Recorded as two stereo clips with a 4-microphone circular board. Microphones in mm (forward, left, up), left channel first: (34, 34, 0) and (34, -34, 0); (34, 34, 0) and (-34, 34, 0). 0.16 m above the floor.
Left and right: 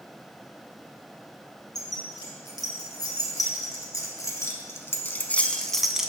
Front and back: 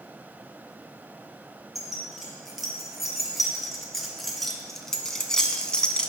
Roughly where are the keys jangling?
Left.